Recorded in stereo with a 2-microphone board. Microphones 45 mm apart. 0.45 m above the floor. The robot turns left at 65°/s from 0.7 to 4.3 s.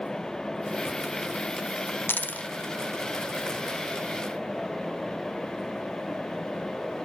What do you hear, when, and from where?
2.1 s a dropped coin: 50° left (ahead or behind), 0.6 m; by 2.5 s 30° left (ahead or behind), 0.6 m